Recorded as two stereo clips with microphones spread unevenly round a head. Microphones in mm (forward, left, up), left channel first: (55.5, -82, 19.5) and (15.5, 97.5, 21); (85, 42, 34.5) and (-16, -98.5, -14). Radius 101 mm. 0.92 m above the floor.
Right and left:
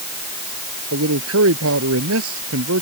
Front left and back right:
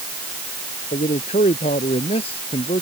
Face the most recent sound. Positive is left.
turn(degrees=120)